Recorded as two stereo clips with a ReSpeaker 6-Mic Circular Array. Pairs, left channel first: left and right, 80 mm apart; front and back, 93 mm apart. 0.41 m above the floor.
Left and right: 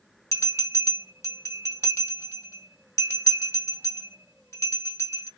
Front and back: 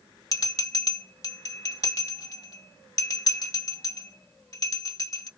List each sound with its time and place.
0.3 s a bell: 40° left, 1.4 m